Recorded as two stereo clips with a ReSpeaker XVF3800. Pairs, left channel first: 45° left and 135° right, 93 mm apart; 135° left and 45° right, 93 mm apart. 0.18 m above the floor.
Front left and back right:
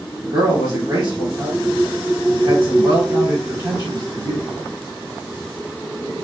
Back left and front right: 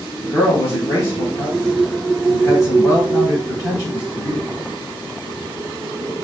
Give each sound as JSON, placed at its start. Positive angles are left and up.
{"t": 0.2, "sound": "a man speaking", "azimuth_deg": 180, "distance_m": 2.0}